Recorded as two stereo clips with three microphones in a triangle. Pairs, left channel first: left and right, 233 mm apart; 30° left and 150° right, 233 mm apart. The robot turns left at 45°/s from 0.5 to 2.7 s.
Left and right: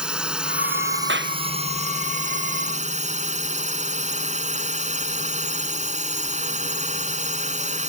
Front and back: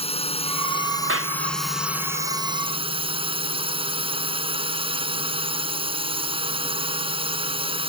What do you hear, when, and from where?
0.0 s a drone: 5° right; by 7.9 s 105° right
1.1 s a clap: 125° right; by 1.4 s 135° right